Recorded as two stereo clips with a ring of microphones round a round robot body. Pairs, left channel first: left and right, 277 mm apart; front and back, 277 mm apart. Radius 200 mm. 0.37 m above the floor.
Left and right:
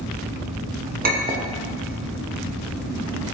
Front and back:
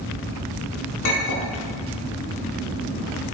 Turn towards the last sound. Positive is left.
turn(degrees=-35)